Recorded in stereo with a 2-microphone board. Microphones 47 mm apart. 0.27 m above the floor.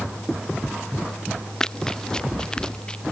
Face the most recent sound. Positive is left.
turn(degrees=20)  # may be behind; listen again after turning